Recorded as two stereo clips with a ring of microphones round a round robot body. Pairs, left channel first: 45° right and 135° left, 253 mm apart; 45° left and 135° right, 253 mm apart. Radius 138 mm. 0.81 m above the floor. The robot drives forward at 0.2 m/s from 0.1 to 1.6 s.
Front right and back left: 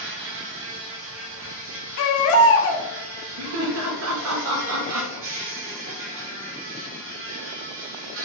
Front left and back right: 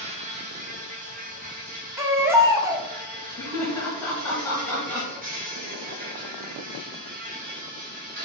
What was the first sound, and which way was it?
An insect, 165° left.